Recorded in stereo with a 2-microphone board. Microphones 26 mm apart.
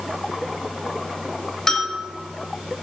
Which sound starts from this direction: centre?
A bell, at 1.7 s.